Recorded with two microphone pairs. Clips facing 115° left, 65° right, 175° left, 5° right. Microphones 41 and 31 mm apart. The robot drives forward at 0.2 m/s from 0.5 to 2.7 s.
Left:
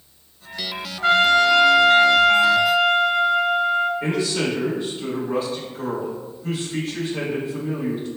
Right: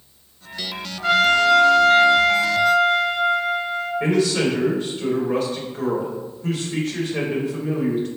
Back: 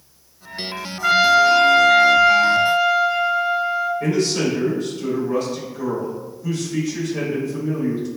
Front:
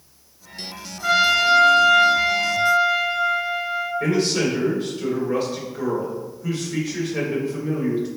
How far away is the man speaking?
About 1.9 m.